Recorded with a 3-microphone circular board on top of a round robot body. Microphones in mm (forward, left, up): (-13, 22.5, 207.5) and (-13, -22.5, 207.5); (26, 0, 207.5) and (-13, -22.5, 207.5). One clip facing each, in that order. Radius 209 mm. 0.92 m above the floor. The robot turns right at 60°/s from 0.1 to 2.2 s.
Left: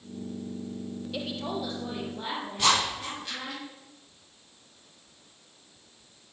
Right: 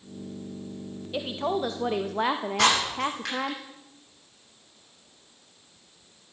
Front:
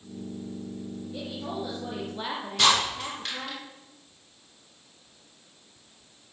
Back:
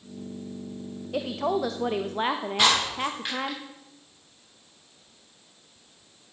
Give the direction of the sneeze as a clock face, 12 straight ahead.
No sneeze in this recording.